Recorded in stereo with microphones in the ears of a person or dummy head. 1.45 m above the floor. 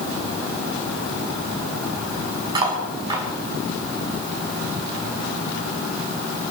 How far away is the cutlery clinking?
About 6.5 m.